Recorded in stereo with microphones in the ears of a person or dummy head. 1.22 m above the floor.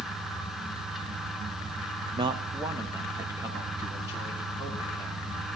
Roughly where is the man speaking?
Right.